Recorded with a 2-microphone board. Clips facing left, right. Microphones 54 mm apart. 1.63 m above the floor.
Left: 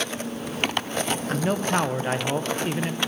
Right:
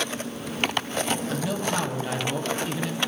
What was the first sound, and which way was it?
A man speaking, 35° left (ahead or behind).